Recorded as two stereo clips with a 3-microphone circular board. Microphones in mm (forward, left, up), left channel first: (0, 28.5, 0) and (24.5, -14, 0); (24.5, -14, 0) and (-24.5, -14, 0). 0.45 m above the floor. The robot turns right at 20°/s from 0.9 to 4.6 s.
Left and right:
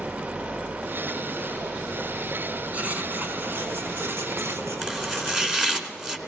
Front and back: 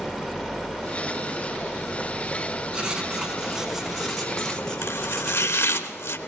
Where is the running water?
90° right, 1.5 m; by 6.3 s 15° right, 1.5 m.